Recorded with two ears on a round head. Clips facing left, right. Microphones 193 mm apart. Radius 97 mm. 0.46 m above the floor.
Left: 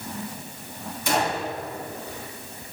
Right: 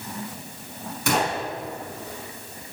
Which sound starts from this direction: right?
A gunshot, at 1.1 s.